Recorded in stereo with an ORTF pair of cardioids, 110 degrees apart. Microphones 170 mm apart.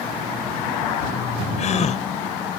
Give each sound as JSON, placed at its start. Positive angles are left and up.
{"t": 1.6, "sound": "a gasp", "azimuth_deg": 45}